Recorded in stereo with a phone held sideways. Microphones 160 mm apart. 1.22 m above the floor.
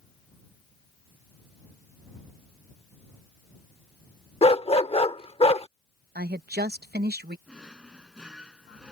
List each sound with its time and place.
4.4 s a dog barking: 40° left (ahead or behind)
6.2 s a woman speaking: 80° right
7.5 s a drawer: 5° right (ahead or behind)